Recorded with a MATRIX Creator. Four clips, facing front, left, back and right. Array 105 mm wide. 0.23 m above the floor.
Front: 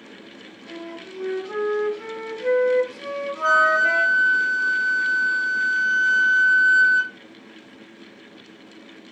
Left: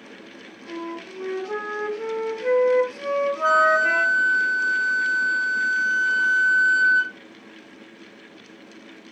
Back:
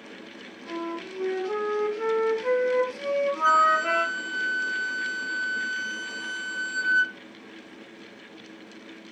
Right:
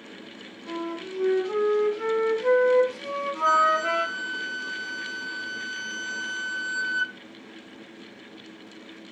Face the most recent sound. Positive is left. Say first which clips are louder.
# left 2 dB, front 4 dB
turn(degrees=25)